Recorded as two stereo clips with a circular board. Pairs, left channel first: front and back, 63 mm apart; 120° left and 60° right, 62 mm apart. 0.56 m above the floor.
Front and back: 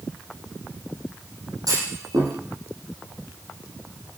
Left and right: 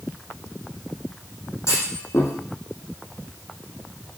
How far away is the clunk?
About 7.5 m.